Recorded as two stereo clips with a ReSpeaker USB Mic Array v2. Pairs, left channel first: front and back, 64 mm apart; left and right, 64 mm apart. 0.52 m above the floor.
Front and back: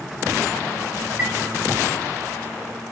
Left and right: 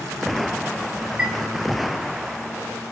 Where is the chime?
135° right, 1.1 m.